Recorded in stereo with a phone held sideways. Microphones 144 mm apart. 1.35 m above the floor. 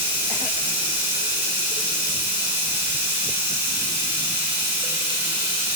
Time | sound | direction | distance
0.0 | running water | 15° right (ahead or behind) | 1.7 m